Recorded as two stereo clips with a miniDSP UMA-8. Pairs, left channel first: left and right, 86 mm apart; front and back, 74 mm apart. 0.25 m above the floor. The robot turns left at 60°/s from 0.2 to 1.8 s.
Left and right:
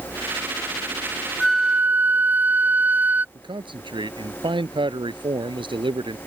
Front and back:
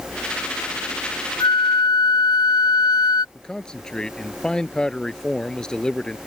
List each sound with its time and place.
1.4 s a flute: 5° left; by 3.2 s 20° right
3.4 s a man speaking: 80° right